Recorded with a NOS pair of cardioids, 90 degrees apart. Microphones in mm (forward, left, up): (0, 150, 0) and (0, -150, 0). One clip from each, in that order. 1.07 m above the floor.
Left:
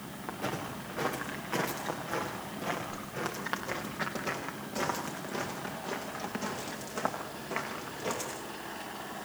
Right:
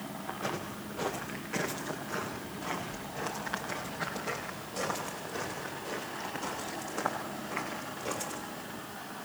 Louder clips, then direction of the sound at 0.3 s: Left 1 dB; 60° left.